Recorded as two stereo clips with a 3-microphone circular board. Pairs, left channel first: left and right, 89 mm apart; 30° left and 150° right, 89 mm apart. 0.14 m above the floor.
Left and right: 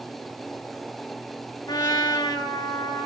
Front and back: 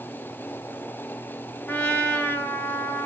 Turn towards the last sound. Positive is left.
turn(degrees=90)